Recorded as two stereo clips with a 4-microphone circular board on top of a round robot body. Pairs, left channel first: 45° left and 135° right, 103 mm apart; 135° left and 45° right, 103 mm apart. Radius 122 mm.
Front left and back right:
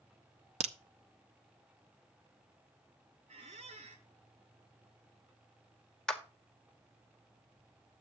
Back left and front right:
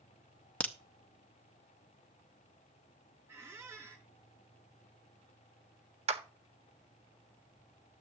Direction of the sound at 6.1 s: 40° right.